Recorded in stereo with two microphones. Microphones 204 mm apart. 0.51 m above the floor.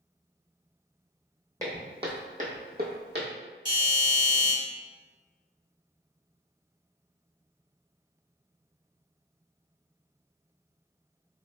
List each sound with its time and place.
1.6 s footsteps: 15° right (ahead or behind), 0.9 m; by 3.3 s 55° right (ahead or behind), 0.9 m
3.6 s a doorbell: 20° right (ahead or behind), 1.5 m